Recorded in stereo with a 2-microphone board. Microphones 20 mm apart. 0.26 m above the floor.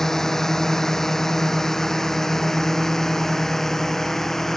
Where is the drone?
20° left (ahead or behind); by 4.6 s 15° left (ahead or behind).